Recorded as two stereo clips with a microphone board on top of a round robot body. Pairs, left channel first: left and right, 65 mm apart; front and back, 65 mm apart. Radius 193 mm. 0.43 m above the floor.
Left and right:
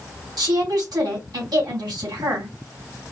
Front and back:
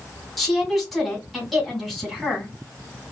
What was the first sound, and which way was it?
A woman speaking, 90° right.